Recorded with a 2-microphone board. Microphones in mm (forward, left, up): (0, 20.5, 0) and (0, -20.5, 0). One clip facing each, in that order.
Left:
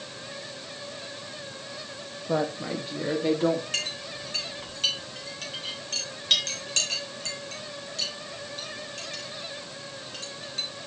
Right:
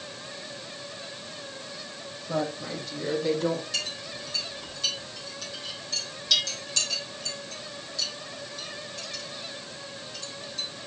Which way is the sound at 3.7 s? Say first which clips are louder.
Left 1 dB; 55° left (ahead or behind).